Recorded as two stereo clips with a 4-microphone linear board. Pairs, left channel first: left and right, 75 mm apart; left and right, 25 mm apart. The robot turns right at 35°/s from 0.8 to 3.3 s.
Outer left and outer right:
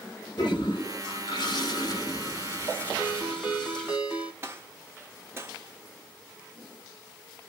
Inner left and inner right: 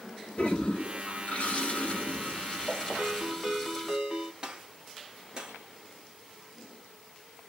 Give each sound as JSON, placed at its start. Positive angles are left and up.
{"t": 0.4, "sound": "a toilet flushing", "azimuth_deg": 85, "distance_m": 1.0}
{"t": 3.0, "sound": "a ringtone", "side_deg": -25, "distance_m": 0.9}
{"t": 4.4, "sound": "a gunshot", "side_deg": -30, "distance_m": 1.0}